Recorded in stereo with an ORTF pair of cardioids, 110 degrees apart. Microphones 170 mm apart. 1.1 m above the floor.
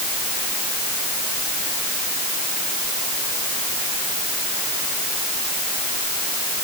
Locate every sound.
Only background noise.